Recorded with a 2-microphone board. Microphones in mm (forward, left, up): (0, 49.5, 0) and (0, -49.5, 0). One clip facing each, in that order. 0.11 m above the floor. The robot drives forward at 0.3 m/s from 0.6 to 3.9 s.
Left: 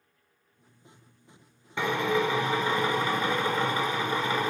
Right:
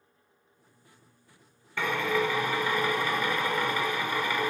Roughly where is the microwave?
I don't hear a microwave.